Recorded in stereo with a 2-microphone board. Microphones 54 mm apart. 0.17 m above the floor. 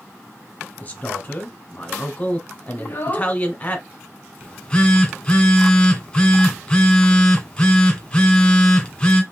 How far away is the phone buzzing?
About 1.4 m.